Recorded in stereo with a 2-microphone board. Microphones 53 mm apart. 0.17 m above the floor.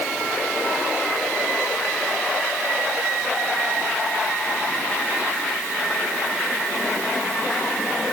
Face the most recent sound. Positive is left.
No sound to turn to.